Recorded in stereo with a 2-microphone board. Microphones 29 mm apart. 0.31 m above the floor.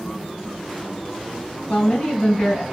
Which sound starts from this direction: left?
A woman speaking, at 1.7 s.